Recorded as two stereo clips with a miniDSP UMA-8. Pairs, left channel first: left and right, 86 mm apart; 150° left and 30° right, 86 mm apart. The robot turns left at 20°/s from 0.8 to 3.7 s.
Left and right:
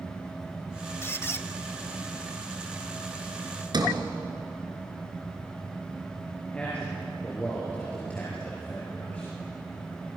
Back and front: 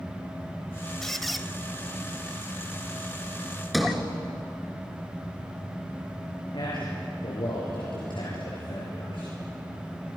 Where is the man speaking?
165° left, 6.5 m.